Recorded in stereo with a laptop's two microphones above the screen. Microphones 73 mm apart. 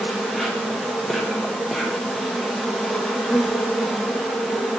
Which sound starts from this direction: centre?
An insect, at 0.0 s.